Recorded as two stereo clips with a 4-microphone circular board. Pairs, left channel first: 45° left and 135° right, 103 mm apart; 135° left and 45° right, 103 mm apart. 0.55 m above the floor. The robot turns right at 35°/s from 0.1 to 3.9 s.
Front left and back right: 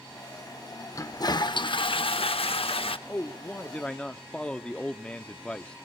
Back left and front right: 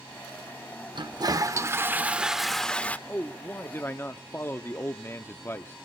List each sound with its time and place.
0.9 s a toilet flushing: 10° right, 0.6 m; by 3.0 s 60° left, 0.6 m
3.1 s a man speaking: 80° left, 0.6 m; by 5.8 s 110° left, 0.6 m